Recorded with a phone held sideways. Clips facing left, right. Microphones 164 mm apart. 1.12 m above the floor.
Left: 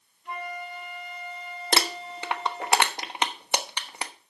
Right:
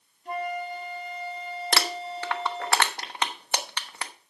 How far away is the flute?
About 1.7 m.